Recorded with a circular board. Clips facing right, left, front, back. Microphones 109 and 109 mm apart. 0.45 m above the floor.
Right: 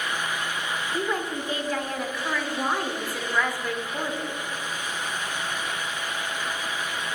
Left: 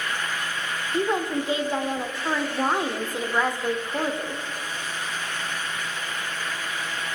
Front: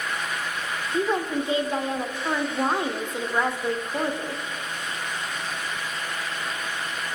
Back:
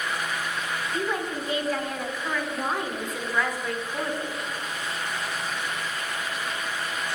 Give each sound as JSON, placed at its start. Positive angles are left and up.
{"t": 0.9, "sound": "a woman speaking", "azimuth_deg": 40, "distance_m": 1.0}